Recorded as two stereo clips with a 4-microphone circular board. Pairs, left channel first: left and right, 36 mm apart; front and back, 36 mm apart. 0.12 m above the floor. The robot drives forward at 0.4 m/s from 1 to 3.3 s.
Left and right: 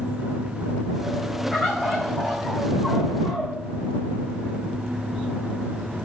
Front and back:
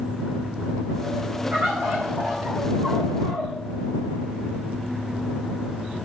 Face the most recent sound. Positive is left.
turn(degrees=175)